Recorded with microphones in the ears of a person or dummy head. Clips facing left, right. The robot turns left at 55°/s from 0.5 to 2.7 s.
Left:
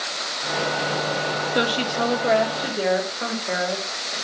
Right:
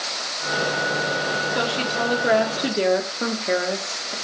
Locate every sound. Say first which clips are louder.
1.6 s a woman speaking: left 4 dB; 25° left, 1.1 m; by 4.2 s 35° right, 1.1 m